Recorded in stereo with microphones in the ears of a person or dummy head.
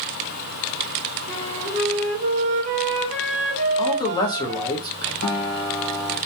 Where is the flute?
35° right (ahead or behind), 0.6 m.